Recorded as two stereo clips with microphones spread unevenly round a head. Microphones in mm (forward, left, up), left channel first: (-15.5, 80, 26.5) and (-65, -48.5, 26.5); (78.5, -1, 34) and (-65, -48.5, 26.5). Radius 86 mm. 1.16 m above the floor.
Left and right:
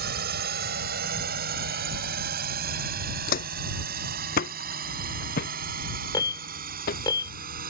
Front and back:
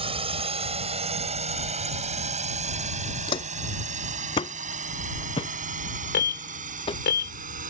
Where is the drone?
110° right; by 7.7 s 125° right.